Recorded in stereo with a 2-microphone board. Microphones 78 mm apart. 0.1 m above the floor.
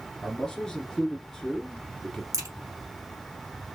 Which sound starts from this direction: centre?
A man speaking, at 0.2 s.